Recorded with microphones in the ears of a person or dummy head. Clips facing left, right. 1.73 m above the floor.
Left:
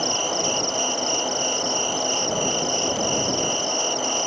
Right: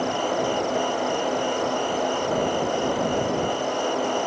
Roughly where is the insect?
Left.